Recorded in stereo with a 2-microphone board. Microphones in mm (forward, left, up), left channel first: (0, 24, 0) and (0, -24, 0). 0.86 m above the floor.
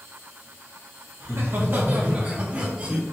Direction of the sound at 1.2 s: 60° right (ahead or behind).